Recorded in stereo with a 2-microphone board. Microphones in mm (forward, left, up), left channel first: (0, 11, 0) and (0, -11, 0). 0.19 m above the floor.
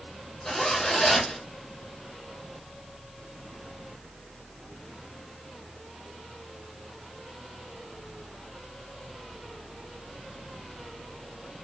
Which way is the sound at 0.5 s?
15° left (ahead or behind).